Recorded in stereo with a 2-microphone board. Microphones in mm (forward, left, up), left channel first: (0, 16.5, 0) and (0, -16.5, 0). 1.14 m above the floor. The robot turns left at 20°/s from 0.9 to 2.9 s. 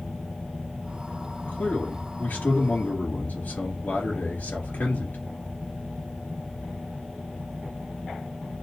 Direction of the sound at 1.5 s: 65° left (ahead or behind).